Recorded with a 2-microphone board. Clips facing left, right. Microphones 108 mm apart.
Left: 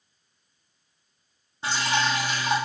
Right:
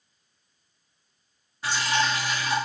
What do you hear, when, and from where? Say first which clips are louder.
1.6 s dripping: even; 25° left (ahead or behind), 0.9 m